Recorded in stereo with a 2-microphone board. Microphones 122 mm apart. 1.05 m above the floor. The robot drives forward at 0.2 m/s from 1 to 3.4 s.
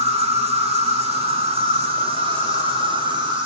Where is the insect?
55° right (ahead or behind), 1.2 m; by 3.5 s 40° right (ahead or behind), 1.5 m.